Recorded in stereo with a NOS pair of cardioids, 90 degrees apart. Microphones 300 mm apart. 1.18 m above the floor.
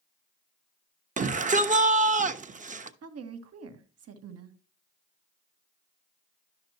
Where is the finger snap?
I don't hear a finger snap.